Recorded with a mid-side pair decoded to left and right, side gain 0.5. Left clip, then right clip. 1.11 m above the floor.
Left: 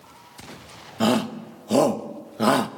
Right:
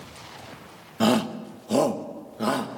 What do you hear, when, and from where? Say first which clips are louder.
1.0 s a shout: even; 5° left, 1.2 m; by 2.7 s 50° left, 1.2 m